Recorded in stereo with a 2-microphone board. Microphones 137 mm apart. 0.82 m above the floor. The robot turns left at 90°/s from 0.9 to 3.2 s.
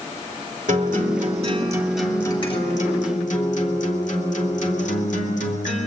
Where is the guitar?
80° right, 2.5 m; by 5.9 s 70° left, 2.5 m.